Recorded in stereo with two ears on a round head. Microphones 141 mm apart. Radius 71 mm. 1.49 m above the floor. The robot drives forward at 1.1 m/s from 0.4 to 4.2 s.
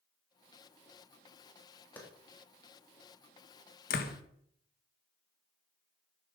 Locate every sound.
2.0 s a clap: 10° left (ahead or behind), 3 m
3.9 s a door slam: 55° left (ahead or behind), 1.3 m; by 4.2 s 65° left (ahead or behind), 1.1 m